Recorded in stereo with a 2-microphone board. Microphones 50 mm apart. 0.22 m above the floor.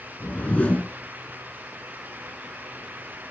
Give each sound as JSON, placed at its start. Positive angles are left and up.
{"t": 0.2, "sound": "a whoosh", "side_deg": 30, "distance_m": 1.0}